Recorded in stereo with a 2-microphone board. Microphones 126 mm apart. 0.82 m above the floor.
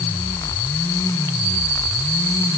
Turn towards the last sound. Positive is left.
No sound to turn to.